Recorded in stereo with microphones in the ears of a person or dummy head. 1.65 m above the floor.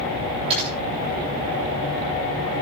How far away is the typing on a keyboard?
About 8.5 m.